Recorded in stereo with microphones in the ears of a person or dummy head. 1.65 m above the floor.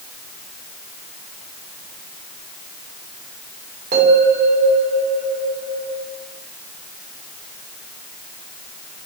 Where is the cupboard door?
No cupboard door in this recording.